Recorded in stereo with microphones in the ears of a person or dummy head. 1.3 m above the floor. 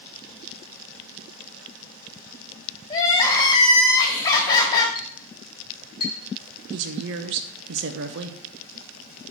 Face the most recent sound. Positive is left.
turn(degrees=-55)  # may be behind; listen again after turning